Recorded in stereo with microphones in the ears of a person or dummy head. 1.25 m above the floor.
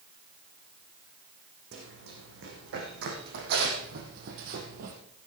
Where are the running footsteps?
70° right (ahead or behind), 4.5 m; by 5.0 s 55° right (ahead or behind), 2.5 m.